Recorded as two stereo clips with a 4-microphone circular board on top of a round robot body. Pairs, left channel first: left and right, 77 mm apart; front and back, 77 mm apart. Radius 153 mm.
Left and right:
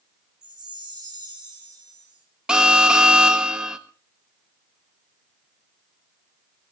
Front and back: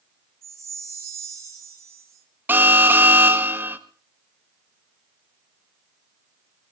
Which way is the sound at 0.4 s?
120° right.